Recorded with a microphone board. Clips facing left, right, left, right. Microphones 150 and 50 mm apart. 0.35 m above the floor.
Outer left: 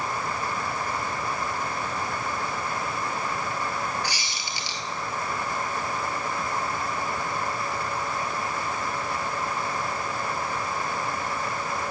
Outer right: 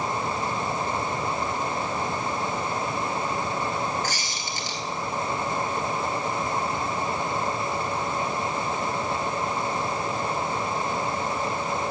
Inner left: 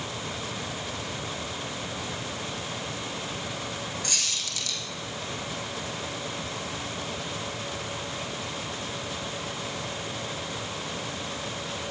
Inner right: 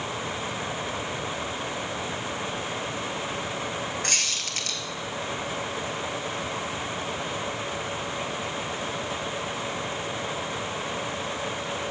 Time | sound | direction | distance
4.0 | a squeak | 50° right (ahead or behind) | 1.9 m